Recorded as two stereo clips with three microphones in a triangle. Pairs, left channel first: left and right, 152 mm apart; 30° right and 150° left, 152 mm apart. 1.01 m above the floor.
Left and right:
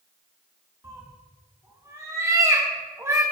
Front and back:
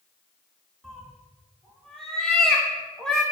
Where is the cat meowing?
110° right, 0.7 m.